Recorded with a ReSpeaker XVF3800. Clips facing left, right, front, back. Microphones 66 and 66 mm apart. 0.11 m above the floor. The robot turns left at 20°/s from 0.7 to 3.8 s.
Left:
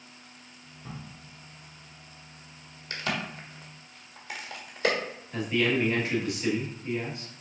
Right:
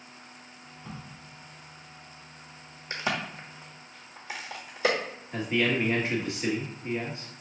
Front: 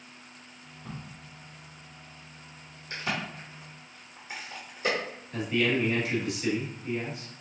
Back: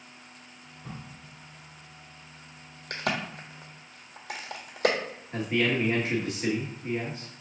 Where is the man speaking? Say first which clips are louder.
Even, even; 140° right, 1.4 m.